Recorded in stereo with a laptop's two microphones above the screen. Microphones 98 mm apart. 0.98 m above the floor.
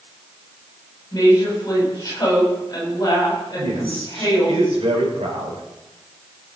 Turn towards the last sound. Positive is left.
turn(degrees=-75)  # may be behind; listen again after turning